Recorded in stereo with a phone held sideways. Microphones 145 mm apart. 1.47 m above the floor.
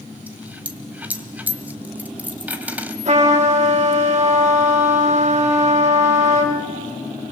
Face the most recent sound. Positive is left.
turn(degrees=-55)  # may be behind; listen again after turning